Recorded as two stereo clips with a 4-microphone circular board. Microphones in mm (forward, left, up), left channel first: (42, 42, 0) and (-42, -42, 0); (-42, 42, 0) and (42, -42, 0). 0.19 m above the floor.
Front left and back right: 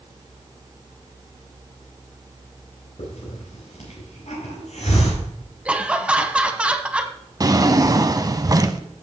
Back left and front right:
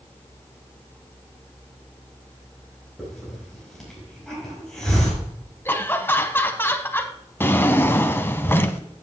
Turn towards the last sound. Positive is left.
turn(degrees=-165)